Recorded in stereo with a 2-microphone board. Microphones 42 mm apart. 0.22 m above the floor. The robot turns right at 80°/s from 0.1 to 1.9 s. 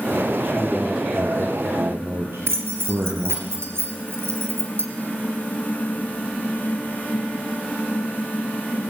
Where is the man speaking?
160° left, 4.5 m; by 3.5 s 95° right, 4.5 m.